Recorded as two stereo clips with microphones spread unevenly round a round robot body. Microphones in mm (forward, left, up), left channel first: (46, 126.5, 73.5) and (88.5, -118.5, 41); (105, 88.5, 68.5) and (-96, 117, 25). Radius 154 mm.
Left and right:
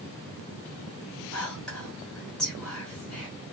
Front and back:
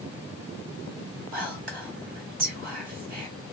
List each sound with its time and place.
1.3 s whispering: 170° right, 1.5 m